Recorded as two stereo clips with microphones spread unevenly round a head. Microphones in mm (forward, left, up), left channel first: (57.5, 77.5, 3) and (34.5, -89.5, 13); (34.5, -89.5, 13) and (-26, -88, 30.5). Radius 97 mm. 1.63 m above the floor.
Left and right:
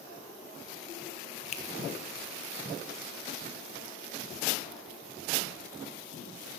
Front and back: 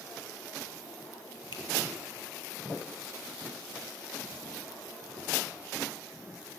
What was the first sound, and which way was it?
A finger snap, 25° left.